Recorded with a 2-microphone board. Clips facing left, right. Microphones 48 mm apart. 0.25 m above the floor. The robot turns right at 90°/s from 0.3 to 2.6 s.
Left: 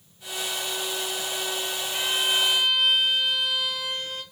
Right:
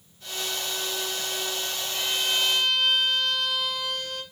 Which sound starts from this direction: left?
A violin, at 1.9 s.